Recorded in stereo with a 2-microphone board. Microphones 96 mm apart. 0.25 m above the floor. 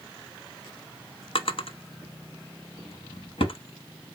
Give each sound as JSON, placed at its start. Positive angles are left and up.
{"t": 1.4, "sound": "a drawer", "side_deg": 65, "distance_m": 0.6}